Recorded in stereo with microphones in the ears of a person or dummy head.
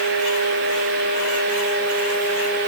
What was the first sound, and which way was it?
Only background noise.